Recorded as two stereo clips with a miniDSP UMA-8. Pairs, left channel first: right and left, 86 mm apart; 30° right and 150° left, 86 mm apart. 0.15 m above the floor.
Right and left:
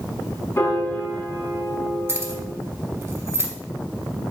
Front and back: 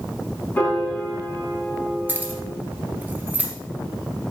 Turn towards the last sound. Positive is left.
turn(degrees=105)